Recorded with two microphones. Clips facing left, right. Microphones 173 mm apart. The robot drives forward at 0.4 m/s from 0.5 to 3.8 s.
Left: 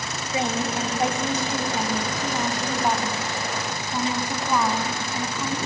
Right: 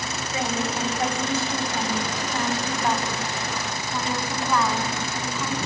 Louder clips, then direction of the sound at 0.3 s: Left 2 dB; 20° left (ahead or behind).